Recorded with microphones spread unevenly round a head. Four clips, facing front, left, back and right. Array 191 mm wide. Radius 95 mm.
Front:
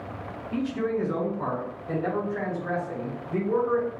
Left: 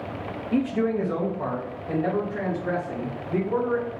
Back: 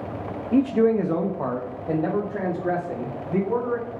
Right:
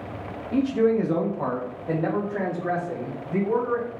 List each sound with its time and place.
0.5 s a man speaking: 170° left, 0.6 m; by 3.9 s 145° right, 2.5 m